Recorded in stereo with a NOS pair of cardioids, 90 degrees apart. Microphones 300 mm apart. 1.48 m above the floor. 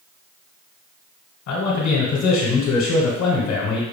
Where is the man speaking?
65° left, 1.3 m.